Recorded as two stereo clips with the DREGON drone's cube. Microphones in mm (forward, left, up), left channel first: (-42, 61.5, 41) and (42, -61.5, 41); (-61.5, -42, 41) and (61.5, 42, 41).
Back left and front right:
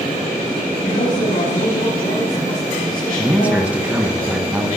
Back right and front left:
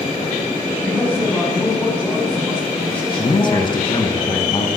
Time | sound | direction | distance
0.8 | a man speaking | 135° left | 8 m
3.2 | a man speaking | 125° right | 1.5 m